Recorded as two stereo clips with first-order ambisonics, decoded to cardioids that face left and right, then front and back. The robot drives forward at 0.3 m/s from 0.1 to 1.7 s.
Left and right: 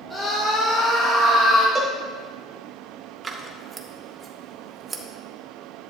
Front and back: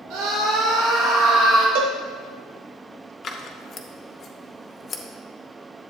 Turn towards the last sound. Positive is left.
turn(degrees=-35)